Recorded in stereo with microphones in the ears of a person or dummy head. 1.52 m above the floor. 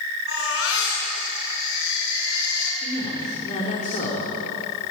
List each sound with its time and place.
0.3 s a baby crying: 85° left, 8 m
2.8 s a man speaking: 40° left (ahead or behind), 5 m